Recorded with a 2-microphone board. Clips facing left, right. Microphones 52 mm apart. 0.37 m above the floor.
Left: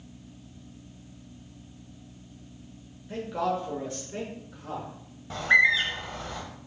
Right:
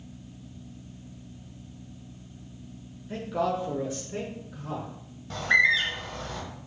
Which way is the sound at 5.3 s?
10° left (ahead or behind).